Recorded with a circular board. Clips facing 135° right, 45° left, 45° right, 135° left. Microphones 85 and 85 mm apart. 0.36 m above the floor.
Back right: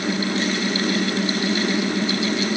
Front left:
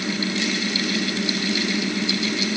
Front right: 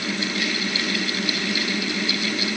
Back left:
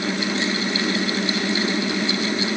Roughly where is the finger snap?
I don't hear a finger snap.